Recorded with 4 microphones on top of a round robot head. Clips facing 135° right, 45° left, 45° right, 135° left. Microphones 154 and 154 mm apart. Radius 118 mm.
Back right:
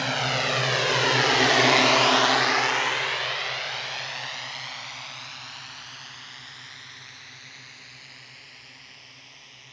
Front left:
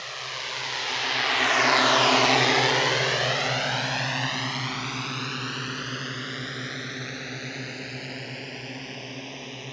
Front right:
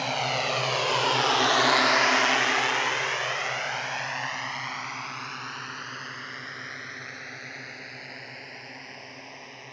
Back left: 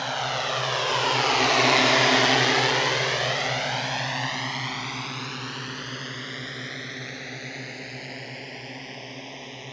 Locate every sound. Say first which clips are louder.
0.0 s a drone: back right 12 dB, even; 125° right; by 9.7 s 70° left